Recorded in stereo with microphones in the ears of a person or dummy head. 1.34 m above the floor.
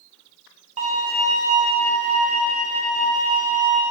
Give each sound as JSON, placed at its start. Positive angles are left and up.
{"t": 0.8, "sound": "a violin", "side_deg": -35, "distance_m": 1.3}